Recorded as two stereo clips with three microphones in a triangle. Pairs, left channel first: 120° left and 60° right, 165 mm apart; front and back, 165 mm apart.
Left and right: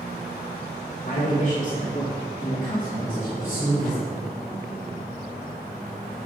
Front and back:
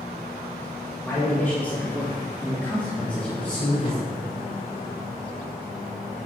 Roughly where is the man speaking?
Left.